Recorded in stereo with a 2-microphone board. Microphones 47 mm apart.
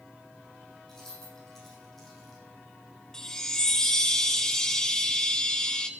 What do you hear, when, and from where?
0.9 s keys jangling: 10° left (ahead or behind), 6 m; by 2.4 s 5° left (ahead or behind), 5.5 m
3.1 s a chime: 10° left (ahead or behind), 0.9 m